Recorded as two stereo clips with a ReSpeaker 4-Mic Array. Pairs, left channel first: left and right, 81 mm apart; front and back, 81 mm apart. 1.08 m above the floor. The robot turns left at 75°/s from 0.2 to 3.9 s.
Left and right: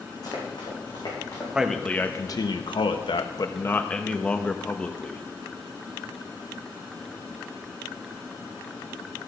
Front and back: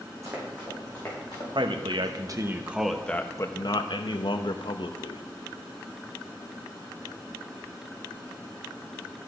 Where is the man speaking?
170° right, 1.0 m; by 5.2 s 15° left, 1.0 m.